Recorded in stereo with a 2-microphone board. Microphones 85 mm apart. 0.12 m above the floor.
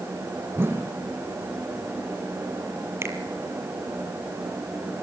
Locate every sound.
0.6 s a whoosh: 25° right (ahead or behind), 3 m
3.0 s a finger snap: 30° right (ahead or behind), 3 m